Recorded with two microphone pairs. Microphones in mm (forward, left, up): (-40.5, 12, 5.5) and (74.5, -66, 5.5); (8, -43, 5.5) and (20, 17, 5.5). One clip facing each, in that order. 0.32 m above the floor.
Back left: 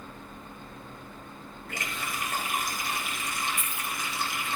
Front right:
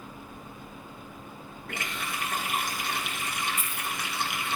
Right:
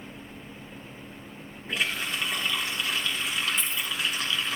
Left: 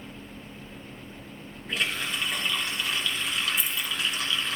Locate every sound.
1.7 s a running tap: 15° right, 2.5 m
3.6 s keys jangling: straight ahead, 1.0 m